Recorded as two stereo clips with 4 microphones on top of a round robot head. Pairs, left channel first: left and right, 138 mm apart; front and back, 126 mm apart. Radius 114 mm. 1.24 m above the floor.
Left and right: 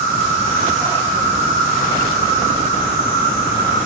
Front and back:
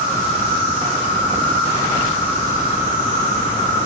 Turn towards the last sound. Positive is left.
turn(degrees=-145)